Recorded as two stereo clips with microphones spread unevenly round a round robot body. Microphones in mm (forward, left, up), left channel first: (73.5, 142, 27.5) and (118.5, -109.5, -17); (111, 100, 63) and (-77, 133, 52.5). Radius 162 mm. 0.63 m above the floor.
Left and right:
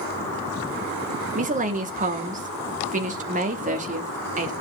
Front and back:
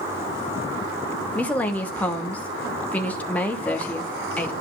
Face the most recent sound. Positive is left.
turn(degrees=-90)